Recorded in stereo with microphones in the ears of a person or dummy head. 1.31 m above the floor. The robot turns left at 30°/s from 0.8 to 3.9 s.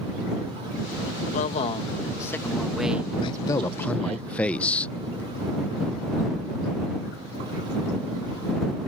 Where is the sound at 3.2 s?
30° left (ahead or behind); by 4.9 s 10° left (ahead or behind).